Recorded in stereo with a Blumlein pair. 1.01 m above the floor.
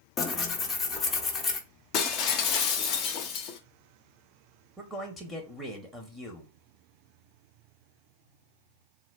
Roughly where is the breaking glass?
Ahead left.